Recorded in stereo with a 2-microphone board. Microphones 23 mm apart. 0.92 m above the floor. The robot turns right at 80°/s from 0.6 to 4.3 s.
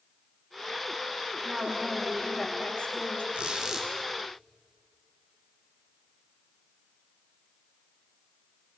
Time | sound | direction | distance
1.4 | a woman speaking | 50° right | 4.5 m
3.3 | a squeak | 60° right | 3.5 m